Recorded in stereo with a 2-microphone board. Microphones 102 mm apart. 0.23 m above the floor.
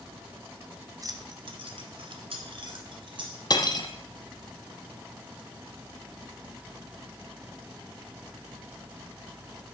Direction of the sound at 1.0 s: 35° right (ahead or behind).